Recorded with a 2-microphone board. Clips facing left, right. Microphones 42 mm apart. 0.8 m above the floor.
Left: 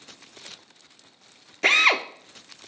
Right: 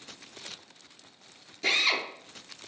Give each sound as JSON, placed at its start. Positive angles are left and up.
{"t": 1.6, "sound": "a drill", "side_deg": 55, "distance_m": 0.5}